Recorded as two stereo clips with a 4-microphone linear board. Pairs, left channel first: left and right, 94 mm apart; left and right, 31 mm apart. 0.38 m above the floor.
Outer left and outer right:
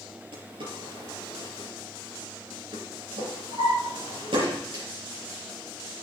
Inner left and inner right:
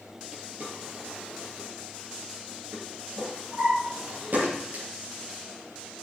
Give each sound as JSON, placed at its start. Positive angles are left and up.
{"t": 0.3, "sound": "a drawer", "side_deg": -70, "distance_m": 4.5}